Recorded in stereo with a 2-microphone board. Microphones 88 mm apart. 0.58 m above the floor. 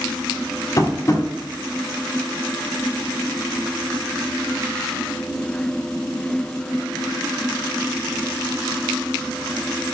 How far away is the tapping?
About 1.1 m.